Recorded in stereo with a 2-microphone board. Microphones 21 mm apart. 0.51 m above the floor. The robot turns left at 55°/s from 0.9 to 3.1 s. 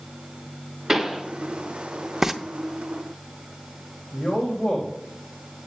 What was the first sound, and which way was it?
A pop, 10° right (ahead or behind).